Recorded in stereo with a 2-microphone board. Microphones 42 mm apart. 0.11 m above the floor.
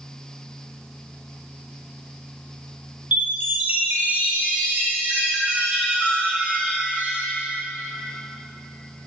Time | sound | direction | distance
3.1 | a chime | 40° right (ahead or behind) | 3 m